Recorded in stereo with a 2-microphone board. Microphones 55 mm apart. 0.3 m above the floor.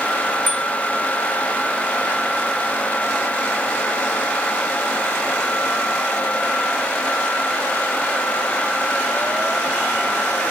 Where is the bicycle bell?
Centre (ahead or behind).